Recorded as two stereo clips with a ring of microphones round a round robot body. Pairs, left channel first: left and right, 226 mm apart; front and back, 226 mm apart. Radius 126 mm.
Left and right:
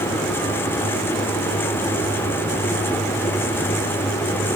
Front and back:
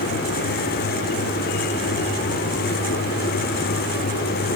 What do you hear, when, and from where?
Only background noise.